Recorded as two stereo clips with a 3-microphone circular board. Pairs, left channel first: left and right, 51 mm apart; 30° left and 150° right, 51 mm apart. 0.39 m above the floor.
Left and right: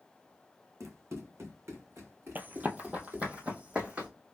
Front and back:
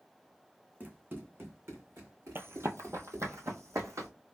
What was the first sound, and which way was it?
Running footsteps, 95° right.